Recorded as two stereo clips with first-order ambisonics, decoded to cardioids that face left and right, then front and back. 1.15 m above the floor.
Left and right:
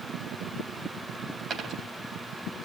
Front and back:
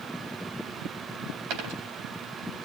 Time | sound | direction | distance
1.5 | a dropped coin | 155° right | 3.5 m